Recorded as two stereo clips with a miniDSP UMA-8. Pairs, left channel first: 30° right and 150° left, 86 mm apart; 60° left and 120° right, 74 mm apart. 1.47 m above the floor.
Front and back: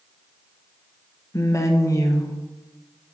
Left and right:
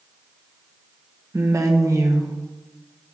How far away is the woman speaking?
About 0.8 m.